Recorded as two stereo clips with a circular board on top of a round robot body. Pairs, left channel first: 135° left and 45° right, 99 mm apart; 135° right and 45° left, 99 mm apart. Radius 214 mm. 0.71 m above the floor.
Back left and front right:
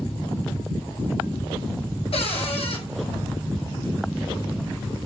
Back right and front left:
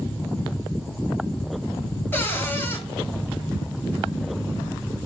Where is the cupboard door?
155° left, 5 m.